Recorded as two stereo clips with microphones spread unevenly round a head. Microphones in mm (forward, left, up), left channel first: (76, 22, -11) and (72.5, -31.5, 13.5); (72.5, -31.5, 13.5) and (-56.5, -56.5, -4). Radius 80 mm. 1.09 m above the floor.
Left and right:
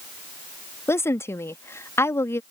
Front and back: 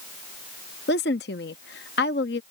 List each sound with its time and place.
0.9 s a woman speaking: 45° left